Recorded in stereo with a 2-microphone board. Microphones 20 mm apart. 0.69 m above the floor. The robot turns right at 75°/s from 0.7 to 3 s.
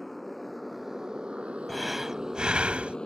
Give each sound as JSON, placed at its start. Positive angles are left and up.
{"t": 0.0, "sound": "a motorcycle", "side_deg": 10}
{"t": 1.7, "sound": "breathing", "azimuth_deg": 170}